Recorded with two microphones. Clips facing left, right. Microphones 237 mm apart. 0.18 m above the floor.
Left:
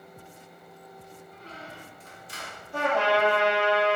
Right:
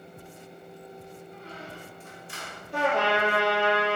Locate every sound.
1.3 s a squeak: 40° left (ahead or behind), 1.1 m
2.7 s a trumpet: 70° right (ahead or behind), 2 m